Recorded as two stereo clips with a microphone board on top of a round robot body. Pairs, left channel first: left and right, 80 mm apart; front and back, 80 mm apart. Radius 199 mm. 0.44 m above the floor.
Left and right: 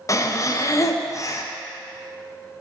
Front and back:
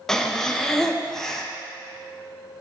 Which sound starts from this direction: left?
Breathing, at 0.1 s.